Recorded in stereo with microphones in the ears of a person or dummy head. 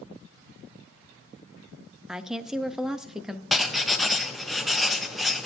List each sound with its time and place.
2.1 s a woman speaking: centre (ahead or behind), 0.5 m
3.5 s writing: centre (ahead or behind), 0.6 m